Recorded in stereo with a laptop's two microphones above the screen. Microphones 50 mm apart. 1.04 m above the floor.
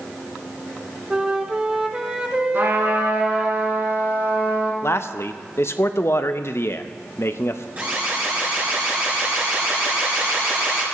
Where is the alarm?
30° right (ahead or behind), 4 m.